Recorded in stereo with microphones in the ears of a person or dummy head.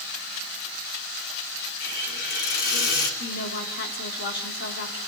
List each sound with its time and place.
1.8 s a hiss: 60° left (ahead or behind), 3 m
3.2 s a woman speaking: 60° left (ahead or behind), 3 m